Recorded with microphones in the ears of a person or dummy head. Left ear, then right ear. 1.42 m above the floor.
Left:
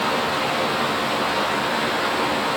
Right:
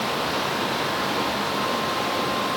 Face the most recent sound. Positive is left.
No sound to turn to.